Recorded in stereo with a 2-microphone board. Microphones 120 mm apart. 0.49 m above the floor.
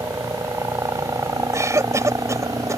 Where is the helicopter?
25° right (ahead or behind).